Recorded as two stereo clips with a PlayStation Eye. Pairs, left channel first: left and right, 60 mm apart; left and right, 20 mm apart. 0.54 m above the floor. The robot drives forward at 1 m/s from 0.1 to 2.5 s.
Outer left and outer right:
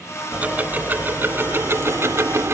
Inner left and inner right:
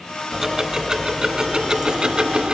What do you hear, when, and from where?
0.3 s ticking: 25° right (ahead or behind); by 2.5 s 50° right (ahead or behind)